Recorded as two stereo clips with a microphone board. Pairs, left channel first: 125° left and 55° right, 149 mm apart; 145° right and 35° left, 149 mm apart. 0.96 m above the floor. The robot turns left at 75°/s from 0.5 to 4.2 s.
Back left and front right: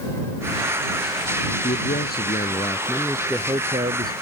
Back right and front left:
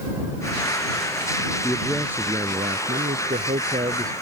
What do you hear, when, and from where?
1.6 s a man speaking: 150° left; by 4.1 s 35° right